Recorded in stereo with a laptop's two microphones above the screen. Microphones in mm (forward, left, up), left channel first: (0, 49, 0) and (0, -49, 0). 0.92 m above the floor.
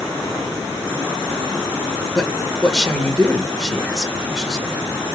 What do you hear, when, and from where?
2.1 s a man speaking: centre (ahead or behind), 1.6 m